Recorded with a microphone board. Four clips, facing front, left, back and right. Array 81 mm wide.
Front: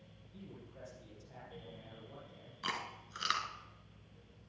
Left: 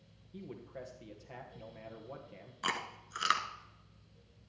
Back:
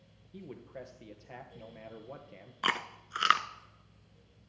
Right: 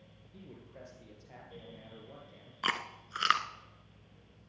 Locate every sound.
0.3 s a man speaking: 165° left, 2.5 m
2.6 s chewing: 165° right, 0.9 m